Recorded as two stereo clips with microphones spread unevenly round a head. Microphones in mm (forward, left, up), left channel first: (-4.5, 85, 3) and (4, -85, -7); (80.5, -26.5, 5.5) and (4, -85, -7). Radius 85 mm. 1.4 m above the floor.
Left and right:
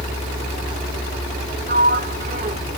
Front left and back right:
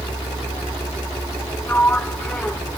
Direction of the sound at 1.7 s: 40° right.